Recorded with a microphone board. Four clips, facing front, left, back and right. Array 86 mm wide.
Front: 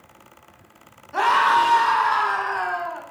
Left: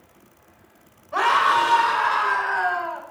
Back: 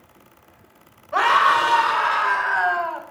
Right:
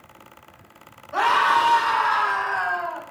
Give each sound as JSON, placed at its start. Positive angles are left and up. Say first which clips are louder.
{"t": 1.1, "sound": "a scream", "louder": "even, back 1 dB", "azimuth_deg": 150, "distance_m": 5.5}